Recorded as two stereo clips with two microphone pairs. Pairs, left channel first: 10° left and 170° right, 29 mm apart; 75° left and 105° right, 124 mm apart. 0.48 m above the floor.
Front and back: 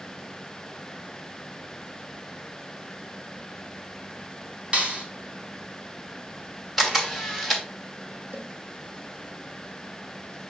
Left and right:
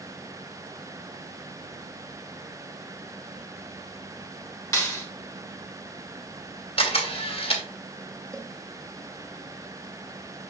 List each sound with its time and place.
4.7 s a clap: 140° left, 4 m
6.8 s a camera shutter: 105° left, 2.5 m
8.3 s a cowbell: 175° right, 1.7 m